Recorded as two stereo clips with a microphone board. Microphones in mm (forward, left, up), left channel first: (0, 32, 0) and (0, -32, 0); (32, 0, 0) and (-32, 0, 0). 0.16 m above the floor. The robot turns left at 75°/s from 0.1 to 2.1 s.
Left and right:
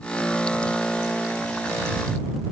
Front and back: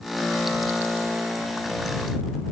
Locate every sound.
Only background noise.